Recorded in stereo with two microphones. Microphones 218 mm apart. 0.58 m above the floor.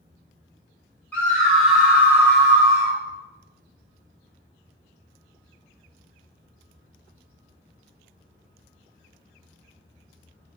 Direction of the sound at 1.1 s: 10° left (ahead or behind).